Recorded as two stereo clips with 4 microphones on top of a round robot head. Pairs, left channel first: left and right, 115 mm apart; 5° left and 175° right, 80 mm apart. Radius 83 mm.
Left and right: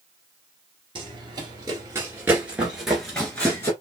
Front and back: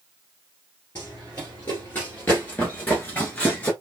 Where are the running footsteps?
70° right, 1.9 m; by 3.7 s 50° left, 1.6 m.